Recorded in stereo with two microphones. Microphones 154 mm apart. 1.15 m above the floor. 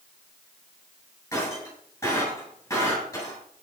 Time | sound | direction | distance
1.3 | breaking glass | 20° left (ahead or behind) | 8.5 m